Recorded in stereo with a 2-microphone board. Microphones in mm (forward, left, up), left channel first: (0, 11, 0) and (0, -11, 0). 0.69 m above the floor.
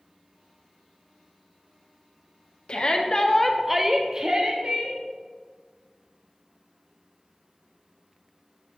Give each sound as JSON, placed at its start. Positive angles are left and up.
{"t": 2.7, "sound": "a shout", "side_deg": 50, "distance_m": 0.8}